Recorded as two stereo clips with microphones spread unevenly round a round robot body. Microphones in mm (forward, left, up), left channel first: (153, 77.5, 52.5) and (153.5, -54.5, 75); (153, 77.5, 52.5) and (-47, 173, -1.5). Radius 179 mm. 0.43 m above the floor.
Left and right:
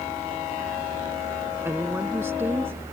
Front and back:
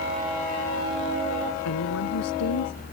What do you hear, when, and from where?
1.6 s a woman speaking: 15° right